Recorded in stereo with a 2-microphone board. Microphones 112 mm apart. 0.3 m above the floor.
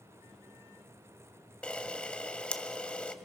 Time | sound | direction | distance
1.6 | a camera shutter | 10° left (ahead or behind) | 1.2 m